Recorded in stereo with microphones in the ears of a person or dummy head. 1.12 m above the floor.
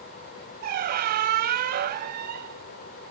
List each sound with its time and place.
0.6 s a squeak: 50° right (ahead or behind), 0.7 m